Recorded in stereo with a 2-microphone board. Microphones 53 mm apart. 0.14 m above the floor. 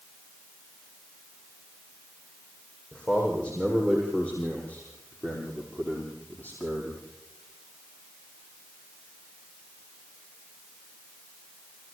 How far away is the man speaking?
About 8 m.